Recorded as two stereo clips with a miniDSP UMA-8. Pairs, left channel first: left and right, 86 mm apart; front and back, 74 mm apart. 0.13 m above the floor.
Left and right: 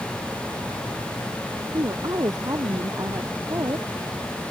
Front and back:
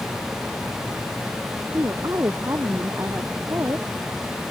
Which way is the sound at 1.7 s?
135° right.